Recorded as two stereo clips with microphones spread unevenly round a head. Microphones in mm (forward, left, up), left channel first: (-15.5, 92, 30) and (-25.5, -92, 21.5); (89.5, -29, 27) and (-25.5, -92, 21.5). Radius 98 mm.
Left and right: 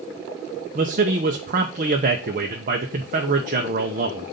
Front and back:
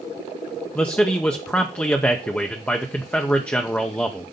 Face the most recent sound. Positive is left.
turn(degrees=-55)